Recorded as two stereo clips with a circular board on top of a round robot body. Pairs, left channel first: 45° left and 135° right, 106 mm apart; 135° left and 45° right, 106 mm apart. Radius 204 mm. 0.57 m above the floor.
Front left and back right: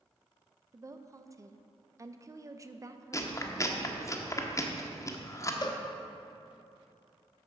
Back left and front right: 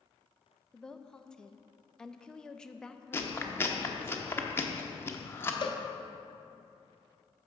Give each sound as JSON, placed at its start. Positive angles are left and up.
{"t": 0.7, "sound": "a woman speaking", "azimuth_deg": -145, "distance_m": 0.7}
{"t": 3.1, "sound": "chewing", "azimuth_deg": 80, "distance_m": 1.2}
{"t": 5.6, "sound": "a cowbell", "azimuth_deg": 95, "distance_m": 0.7}